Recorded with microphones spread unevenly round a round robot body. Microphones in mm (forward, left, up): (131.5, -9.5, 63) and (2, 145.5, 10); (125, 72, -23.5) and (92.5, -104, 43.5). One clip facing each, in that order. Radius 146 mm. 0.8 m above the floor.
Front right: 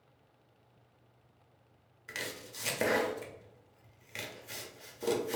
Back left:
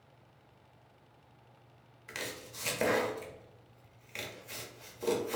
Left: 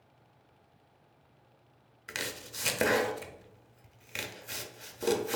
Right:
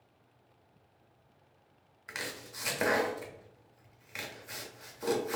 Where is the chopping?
10° left, 0.6 m.